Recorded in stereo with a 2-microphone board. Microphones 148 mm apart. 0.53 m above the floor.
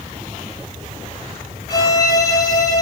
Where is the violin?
25° left (ahead or behind), 3 m.